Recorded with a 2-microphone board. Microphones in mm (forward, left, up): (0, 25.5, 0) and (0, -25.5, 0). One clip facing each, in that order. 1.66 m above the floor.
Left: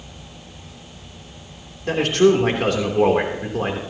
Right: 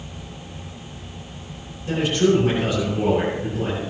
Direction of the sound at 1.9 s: 90° left.